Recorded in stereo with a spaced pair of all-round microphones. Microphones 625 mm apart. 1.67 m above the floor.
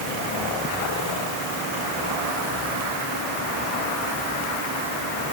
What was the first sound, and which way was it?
Only background noise.